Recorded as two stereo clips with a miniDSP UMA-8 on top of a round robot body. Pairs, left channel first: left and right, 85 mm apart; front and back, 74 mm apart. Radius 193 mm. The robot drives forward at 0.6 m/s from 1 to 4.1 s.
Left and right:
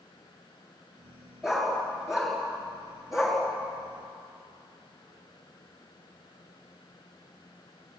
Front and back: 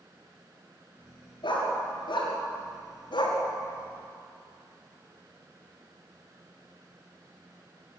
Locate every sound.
1.4 s a dog barking: 5° right, 6 m